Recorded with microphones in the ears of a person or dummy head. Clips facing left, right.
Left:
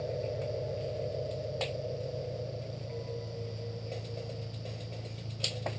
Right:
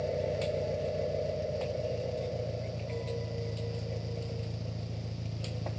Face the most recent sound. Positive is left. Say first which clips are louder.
# right 3 dB
turn(degrees=-60)  # may be behind; listen again after turning